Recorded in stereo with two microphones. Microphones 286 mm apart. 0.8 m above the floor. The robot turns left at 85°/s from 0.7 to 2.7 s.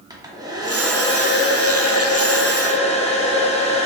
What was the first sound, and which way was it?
A hair dryer, 165° right.